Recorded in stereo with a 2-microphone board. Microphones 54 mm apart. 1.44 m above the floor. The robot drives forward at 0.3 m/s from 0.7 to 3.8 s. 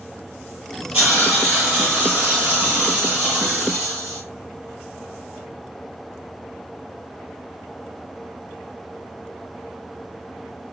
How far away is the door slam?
No door slam in this recording.